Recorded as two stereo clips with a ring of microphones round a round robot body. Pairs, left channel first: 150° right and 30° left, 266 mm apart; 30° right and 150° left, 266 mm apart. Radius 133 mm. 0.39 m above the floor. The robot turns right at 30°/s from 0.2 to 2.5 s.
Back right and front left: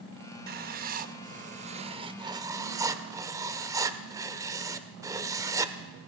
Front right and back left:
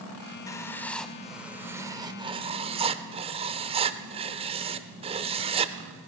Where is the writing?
35° left, 0.5 m; by 5.7 s 100° left, 0.5 m.